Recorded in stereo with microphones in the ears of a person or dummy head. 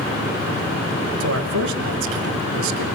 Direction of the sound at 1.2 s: 70° right (ahead or behind).